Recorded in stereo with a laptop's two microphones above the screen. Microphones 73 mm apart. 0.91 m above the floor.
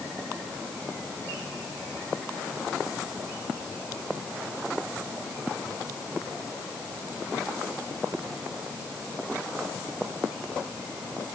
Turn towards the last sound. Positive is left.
No sound to turn to.